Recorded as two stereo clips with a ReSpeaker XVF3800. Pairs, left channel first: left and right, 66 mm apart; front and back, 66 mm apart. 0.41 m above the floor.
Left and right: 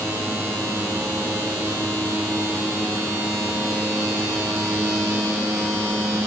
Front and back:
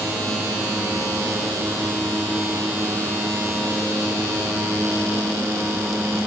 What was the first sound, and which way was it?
Only background noise.